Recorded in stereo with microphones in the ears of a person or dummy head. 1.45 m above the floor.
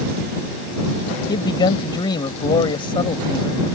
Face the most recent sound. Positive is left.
turn(degrees=30)  # may be behind; listen again after turning